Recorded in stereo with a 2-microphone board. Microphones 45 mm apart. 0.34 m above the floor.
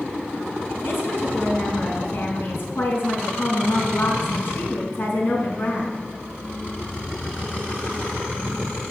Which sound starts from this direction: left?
A woman speaking, at 0.8 s.